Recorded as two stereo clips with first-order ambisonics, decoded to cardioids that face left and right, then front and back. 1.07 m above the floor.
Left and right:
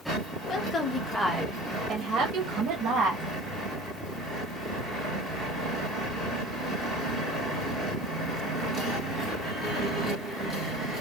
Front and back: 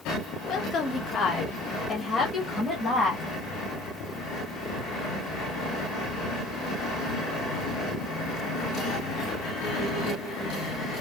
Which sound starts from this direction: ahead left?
A woman speaking, at 0.4 s.